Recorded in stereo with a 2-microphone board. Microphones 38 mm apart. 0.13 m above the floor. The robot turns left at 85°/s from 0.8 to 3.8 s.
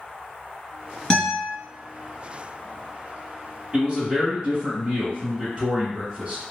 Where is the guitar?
160° left, 1.7 m; by 1.5 s 125° left, 1.7 m.